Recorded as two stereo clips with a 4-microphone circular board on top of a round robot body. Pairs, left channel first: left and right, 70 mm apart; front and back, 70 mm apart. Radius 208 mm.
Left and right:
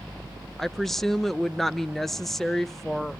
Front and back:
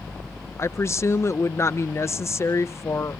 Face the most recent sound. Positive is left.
turn(degrees=5)